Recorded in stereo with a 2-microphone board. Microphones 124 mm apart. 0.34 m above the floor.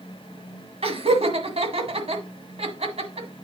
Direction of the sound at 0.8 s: 55° right (ahead or behind).